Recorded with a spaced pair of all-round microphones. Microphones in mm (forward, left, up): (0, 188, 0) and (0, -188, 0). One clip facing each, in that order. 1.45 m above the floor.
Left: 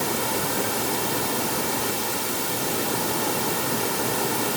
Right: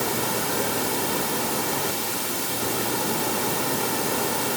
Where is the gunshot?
No gunshot in this recording.